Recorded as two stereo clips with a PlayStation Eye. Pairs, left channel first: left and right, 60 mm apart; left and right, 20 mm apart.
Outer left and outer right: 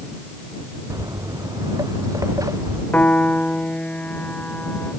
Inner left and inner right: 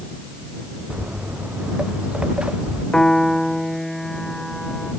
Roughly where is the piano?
Left.